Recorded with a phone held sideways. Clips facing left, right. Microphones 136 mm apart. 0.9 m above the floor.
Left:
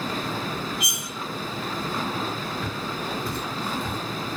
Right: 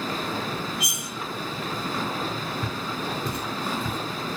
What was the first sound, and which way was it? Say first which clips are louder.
Cutlery clinking: even; 55° left (ahead or behind).